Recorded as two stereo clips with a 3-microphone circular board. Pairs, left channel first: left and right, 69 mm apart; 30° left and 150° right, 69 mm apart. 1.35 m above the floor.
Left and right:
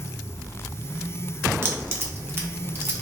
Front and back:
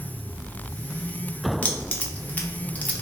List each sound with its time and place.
1.6 s keys jangling: 35° right, 0.8 m